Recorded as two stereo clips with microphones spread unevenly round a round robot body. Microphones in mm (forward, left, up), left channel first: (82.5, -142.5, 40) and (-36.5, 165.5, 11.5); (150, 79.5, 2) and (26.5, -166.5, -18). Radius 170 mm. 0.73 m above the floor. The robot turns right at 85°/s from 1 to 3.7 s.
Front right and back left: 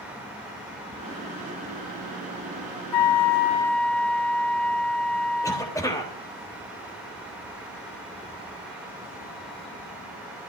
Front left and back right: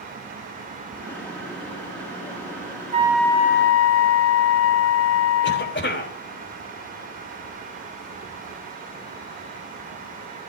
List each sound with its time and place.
2.9 s a flute: 50° right, 0.6 m; by 5.8 s 20° left, 0.6 m
5.4 s a cough: 15° left, 4 m